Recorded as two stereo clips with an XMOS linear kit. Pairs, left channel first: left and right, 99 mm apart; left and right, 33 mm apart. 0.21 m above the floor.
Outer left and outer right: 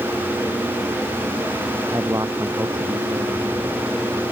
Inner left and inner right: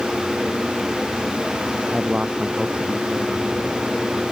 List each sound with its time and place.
1.9 s a man speaking: 30° right (ahead or behind)